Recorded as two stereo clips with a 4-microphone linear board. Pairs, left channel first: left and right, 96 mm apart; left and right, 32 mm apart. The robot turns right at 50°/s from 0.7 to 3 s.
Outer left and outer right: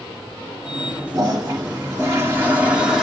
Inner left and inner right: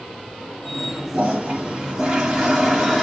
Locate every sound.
1.1 s a toilet flushing: 100° right, 1.3 m; by 3.0 s 5° right, 1.3 m